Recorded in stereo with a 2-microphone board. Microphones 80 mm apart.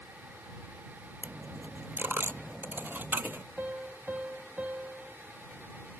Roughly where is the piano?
Centre.